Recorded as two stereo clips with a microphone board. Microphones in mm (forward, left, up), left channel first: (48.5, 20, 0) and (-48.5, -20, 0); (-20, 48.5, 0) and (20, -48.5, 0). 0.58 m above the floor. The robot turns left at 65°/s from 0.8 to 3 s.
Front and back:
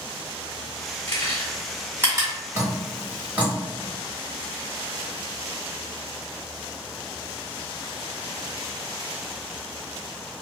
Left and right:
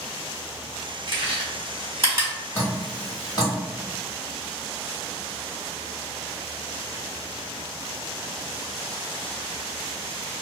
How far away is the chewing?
About 1.5 m.